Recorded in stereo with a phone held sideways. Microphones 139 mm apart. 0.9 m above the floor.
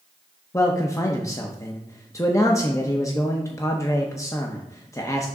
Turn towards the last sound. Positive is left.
turn(degrees=20)  # may be behind; listen again after turning